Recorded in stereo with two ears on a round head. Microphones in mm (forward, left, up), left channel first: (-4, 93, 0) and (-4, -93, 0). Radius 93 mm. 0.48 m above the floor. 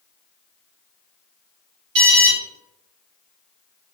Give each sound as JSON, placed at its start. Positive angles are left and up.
{"t": 1.9, "sound": "an alarm", "side_deg": -55, "distance_m": 1.7}